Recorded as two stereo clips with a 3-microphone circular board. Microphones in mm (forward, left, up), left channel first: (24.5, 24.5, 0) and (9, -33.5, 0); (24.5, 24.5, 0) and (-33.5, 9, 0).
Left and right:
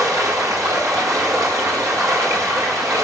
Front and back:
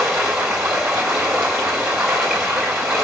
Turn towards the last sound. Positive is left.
turn(degrees=-85)